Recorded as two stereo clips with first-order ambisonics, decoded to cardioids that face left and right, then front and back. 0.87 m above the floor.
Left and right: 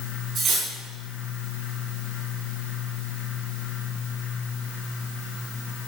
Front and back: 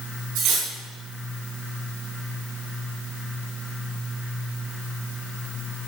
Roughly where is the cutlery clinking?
Behind right.